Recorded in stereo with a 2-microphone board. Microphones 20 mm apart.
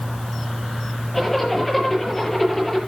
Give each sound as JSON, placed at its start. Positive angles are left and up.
{"t": 1.1, "sound": "a zipper", "side_deg": 5, "distance_m": 7.0}